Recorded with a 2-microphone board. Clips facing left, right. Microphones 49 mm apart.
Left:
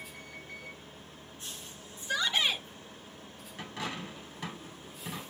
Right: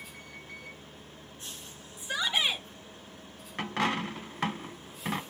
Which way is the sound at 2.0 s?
15° right (ahead or behind).